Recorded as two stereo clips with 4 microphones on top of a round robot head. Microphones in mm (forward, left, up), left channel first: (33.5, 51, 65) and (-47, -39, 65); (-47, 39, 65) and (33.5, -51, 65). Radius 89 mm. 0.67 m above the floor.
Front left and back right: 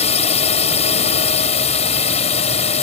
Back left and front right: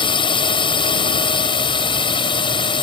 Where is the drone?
80° left.